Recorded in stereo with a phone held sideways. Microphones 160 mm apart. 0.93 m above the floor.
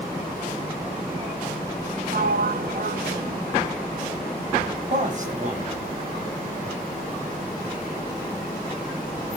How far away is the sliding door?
About 0.7 m.